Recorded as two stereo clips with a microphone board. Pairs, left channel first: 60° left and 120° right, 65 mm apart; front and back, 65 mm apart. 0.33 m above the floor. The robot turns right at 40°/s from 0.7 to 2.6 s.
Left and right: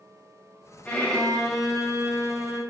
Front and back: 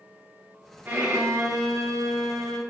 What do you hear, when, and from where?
0.8 s a violin: 125° left, 1.7 m; by 2.6 s 165° right, 1.7 m